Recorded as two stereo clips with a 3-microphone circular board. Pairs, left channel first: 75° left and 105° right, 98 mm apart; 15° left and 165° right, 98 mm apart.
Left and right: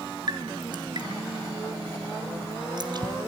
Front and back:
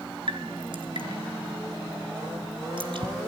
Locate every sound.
0.3 s dripping: 140° right, 3 m